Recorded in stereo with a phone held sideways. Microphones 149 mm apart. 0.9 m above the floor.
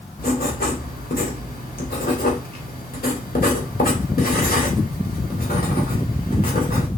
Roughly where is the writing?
Left.